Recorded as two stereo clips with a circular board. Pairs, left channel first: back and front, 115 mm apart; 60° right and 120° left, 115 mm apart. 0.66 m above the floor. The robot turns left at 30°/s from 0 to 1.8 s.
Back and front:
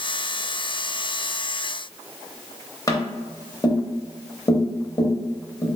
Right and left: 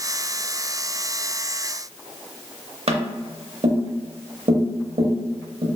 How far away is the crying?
No crying in this recording.